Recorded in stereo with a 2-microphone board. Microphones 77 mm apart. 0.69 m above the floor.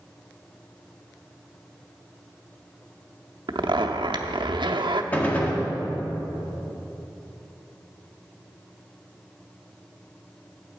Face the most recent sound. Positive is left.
turn(degrees=20)  # may be behind; listen again after turning